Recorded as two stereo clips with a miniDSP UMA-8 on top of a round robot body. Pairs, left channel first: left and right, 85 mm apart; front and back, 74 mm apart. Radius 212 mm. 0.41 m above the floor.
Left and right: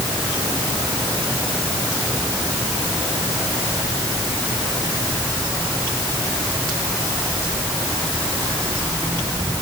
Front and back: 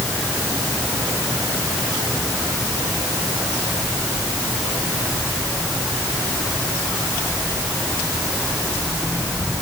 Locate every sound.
Only background noise.